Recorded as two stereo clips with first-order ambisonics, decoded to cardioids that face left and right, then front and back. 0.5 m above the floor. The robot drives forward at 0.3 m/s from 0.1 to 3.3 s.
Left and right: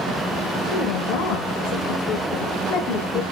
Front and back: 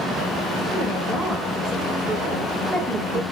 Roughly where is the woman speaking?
Left.